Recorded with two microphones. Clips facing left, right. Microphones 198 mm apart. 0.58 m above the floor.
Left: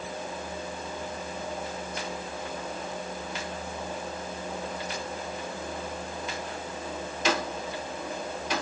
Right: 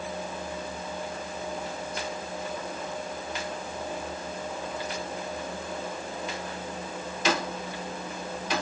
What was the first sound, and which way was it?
Only background noise.